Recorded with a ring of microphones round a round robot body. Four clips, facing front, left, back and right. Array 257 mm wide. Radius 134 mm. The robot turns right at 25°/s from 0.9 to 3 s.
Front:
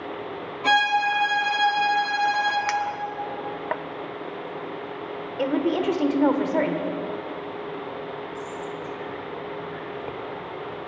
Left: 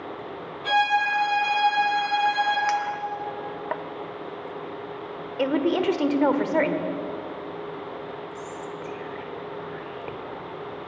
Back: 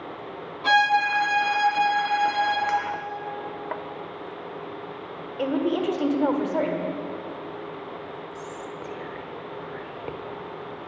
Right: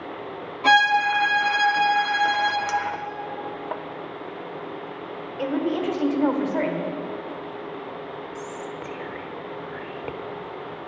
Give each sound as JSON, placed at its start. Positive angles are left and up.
{"t": 0.6, "sound": "a violin", "azimuth_deg": -85, "distance_m": 4.0}
{"t": 2.7, "sound": "a clink", "azimuth_deg": 10, "distance_m": 0.6}
{"t": 5.4, "sound": "a woman speaking", "azimuth_deg": 70, "distance_m": 1.4}
{"t": 8.3, "sound": "whispering", "azimuth_deg": -100, "distance_m": 1.2}